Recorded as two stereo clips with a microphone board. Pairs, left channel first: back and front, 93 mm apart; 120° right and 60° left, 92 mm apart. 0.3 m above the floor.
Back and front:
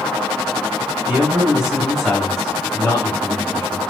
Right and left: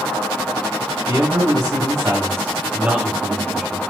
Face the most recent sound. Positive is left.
turn(degrees=150)